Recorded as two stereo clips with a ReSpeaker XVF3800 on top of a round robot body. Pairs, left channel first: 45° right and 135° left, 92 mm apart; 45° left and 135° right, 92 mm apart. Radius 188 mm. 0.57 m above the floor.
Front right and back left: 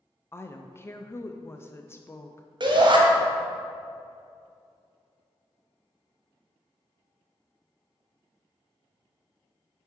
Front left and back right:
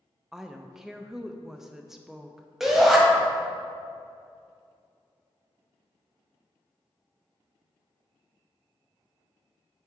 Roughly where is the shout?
Behind left.